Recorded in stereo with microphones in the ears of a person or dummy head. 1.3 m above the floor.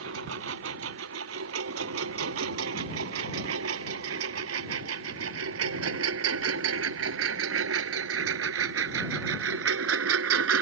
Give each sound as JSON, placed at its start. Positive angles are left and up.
{"t": 0.0, "sound": "a lawn mower", "side_deg": -70}